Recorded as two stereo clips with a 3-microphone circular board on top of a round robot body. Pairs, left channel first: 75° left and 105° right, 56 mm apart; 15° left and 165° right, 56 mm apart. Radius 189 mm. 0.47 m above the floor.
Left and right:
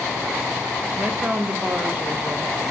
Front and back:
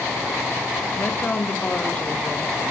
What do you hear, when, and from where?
1.0 s a woman speaking: 45° right, 1.3 m; by 2.5 s 50° right, 3 m